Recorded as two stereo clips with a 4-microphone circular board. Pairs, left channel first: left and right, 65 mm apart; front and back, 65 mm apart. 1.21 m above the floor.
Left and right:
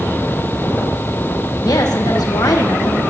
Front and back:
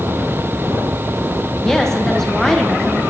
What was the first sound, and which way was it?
A woman speaking, 85° left.